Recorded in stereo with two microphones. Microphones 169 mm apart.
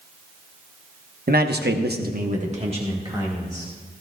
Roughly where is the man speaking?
Right.